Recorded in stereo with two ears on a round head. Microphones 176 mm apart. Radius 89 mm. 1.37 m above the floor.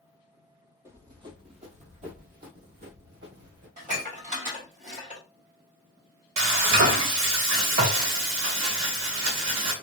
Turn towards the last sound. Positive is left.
turn(degrees=-75)  # may be behind; listen again after turning